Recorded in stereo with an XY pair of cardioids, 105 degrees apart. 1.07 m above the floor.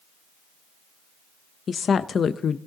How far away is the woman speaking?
About 0.6 m.